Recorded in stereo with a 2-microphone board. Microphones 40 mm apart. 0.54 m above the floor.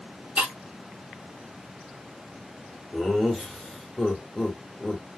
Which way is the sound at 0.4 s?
30° right (ahead or behind).